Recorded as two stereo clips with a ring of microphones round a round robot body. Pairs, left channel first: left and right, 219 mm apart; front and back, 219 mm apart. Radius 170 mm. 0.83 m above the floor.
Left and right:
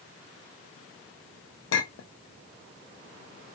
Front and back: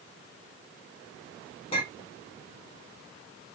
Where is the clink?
65° left, 0.7 m.